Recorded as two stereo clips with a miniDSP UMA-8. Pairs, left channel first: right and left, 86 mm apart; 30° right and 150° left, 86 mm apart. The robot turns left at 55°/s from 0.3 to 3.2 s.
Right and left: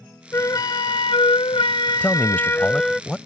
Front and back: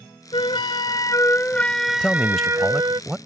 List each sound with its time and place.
0.3 s a flute: 35° right; by 3.0 s straight behind
2.0 s a man speaking: 85° right; by 3.2 s 150° right